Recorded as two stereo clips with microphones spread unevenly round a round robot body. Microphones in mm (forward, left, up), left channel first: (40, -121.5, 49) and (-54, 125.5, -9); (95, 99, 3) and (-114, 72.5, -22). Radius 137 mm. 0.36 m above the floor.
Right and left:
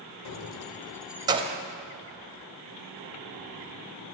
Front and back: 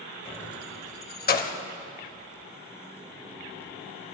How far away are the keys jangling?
About 0.9 m.